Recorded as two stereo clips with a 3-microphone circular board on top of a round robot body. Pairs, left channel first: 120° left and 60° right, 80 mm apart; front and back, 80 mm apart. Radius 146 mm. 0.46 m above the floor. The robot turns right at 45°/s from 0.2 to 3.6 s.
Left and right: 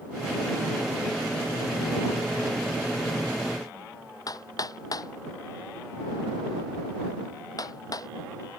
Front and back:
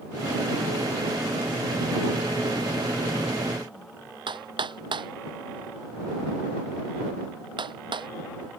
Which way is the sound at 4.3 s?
165° left.